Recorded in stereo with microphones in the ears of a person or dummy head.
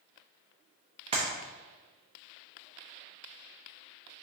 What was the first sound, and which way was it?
A clap, 35° right (ahead or behind).